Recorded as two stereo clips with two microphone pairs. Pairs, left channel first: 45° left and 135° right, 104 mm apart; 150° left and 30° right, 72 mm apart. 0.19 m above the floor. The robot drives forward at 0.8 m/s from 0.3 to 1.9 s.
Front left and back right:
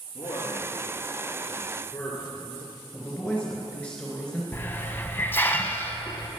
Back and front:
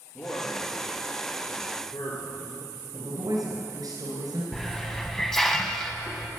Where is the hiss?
75° left, 0.9 m.